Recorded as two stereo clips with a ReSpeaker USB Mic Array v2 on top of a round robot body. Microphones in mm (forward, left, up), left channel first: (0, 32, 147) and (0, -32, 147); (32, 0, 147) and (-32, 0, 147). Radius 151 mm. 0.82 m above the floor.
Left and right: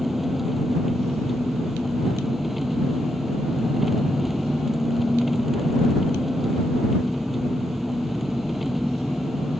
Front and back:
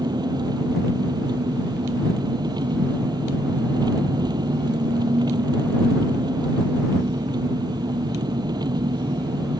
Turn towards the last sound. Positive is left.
turn(degrees=180)